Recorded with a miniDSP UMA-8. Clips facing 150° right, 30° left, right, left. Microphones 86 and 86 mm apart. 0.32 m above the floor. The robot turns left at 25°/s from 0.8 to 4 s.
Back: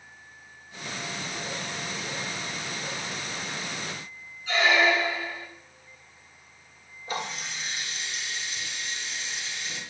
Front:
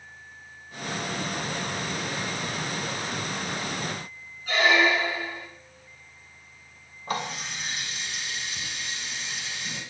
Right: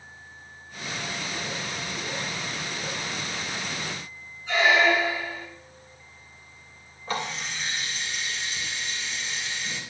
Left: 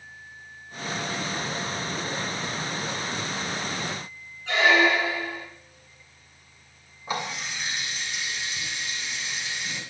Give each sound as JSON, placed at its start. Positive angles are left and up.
{"t": 4.5, "sound": "a squeak", "azimuth_deg": 75, "distance_m": 2.0}
{"t": 7.1, "sound": "a running tap", "azimuth_deg": 10, "distance_m": 1.6}